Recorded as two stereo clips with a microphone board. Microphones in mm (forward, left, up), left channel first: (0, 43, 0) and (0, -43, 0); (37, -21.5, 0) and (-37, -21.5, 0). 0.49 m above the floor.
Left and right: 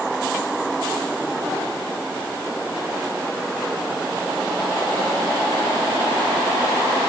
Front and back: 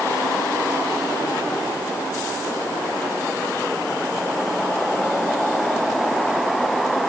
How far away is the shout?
I don't hear a shout.